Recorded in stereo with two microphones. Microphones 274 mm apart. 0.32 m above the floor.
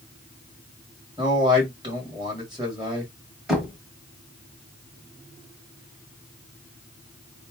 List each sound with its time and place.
1.2 s a man speaking: 15° right (ahead or behind), 1.8 m
3.5 s knocking: centre (ahead or behind), 1.5 m